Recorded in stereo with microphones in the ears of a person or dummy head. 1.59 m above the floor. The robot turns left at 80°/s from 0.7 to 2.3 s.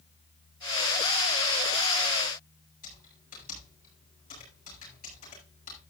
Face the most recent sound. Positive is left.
turn(degrees=40)  # may be behind; listen again after turning